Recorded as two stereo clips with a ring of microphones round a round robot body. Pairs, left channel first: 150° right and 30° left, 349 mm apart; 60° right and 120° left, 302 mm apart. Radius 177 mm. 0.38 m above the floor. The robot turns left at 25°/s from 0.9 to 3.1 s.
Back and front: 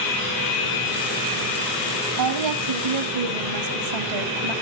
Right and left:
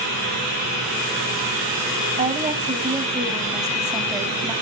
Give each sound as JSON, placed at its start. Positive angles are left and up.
{"t": 2.2, "sound": "a woman speaking", "azimuth_deg": 65, "distance_m": 2.5}